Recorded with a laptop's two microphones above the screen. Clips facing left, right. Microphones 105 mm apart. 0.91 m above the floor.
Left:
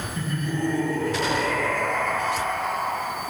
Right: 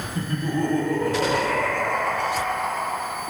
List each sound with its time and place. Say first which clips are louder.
0.1 s laughter: right 3 dB; 40° right (ahead or behind), 1.7 m; by 3.0 s 60° right (ahead or behind), 2.0 m